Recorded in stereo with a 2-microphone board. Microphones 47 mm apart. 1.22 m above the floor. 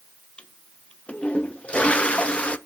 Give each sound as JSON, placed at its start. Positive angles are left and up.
{"t": 0.4, "sound": "a toilet flushing", "side_deg": 25, "distance_m": 0.6}